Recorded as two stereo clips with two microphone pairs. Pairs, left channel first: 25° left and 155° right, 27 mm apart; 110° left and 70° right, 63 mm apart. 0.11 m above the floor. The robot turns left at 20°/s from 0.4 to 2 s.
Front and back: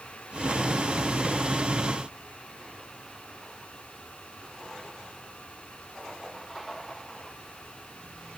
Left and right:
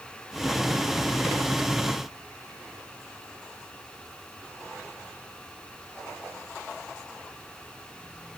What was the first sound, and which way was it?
Only background noise.